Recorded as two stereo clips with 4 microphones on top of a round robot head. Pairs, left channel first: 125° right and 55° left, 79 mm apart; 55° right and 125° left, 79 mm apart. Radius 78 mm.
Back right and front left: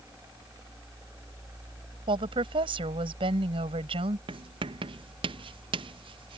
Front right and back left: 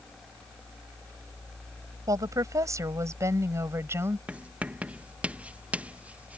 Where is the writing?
50° left.